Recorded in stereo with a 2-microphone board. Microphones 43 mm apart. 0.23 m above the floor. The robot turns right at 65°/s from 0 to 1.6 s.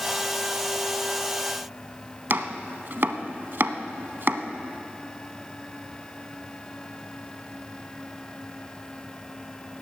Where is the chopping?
55° right (ahead or behind), 0.8 m.